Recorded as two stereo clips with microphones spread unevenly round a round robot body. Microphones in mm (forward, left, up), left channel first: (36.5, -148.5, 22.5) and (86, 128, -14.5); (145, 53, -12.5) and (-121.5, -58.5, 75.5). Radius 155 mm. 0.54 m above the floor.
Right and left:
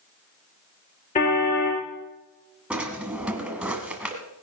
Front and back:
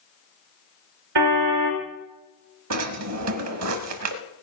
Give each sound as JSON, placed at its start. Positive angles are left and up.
{"t": 1.1, "sound": "a car horn", "azimuth_deg": -170, "distance_m": 3.5}
{"t": 2.7, "sound": "a drawer", "azimuth_deg": 170, "distance_m": 1.2}